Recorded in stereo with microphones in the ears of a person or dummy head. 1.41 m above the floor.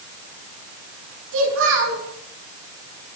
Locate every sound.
1.3 s a child speaking: 75° right (ahead or behind), 8.5 m